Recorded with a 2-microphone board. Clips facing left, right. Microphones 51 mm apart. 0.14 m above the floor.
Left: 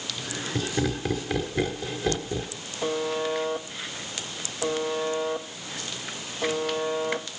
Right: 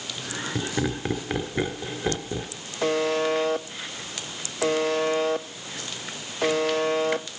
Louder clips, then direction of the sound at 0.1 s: Right 1 dB; 20° right (ahead or behind).